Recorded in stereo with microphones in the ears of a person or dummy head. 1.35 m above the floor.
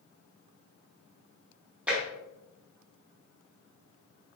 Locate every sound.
1.9 s tapping: 5° right (ahead or behind), 1.0 m